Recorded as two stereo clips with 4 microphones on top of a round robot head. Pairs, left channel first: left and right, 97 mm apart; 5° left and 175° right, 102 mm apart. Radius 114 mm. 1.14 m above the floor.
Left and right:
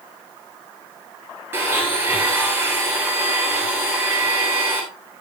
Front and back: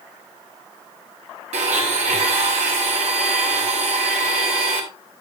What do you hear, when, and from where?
1.5 s a blender: 160° right, 3 m